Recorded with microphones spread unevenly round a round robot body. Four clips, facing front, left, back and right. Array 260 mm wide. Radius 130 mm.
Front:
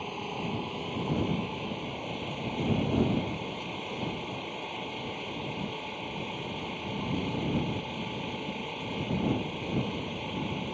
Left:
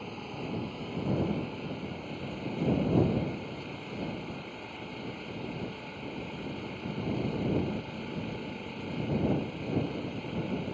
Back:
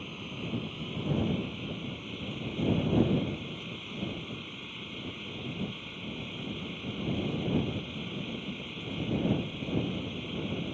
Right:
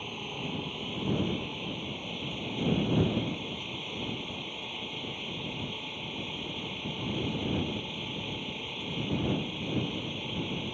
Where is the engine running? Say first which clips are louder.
Even, front 5 dB; 10° right.